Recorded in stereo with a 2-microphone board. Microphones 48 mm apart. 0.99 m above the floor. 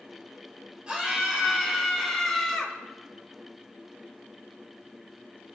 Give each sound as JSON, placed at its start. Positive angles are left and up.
{"t": 0.9, "sound": "a scream", "side_deg": -20, "distance_m": 5.0}